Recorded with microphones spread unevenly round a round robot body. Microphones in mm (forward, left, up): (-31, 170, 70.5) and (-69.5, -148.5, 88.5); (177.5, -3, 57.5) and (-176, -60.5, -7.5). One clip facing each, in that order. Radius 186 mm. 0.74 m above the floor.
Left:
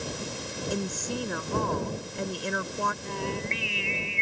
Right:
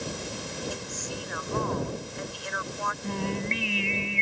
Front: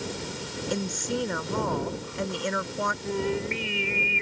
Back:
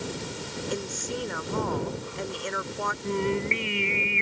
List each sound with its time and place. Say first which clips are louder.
0.7 s a woman speaking: left 6 dB, front 4 dB; 30° left
3.0 s singing: right 2 dB, back 2 dB; 85° right